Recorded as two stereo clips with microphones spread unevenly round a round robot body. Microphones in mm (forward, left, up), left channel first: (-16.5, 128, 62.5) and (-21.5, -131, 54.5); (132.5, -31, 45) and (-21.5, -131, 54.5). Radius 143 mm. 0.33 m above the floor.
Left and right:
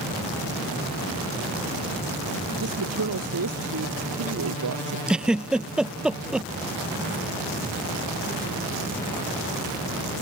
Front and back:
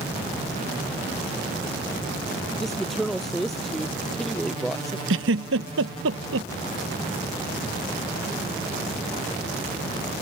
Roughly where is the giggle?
Behind.